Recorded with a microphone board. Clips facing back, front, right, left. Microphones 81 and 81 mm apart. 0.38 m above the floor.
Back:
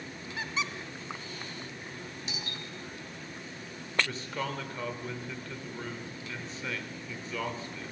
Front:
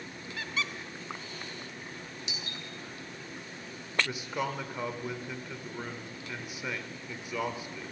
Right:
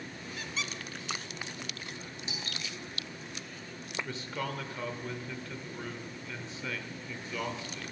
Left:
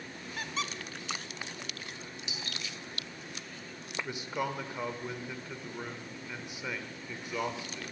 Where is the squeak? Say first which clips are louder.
Back 1 dB, left 3 dB; 115° left, 0.6 m.